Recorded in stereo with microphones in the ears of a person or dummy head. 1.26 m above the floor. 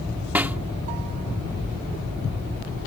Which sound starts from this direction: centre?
A snare drum, at 0.3 s.